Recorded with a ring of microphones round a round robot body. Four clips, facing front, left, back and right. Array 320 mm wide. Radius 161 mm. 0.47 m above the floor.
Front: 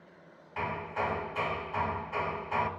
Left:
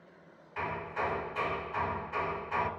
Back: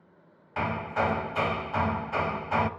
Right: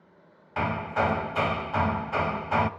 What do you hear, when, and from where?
0.6 s hammering: 120° right, 1.5 m